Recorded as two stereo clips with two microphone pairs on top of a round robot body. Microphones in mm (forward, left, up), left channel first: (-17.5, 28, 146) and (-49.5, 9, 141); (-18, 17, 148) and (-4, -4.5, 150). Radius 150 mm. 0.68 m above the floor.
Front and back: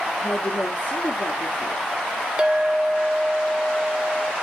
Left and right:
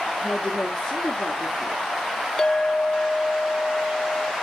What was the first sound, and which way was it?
A woman speaking, 60° left.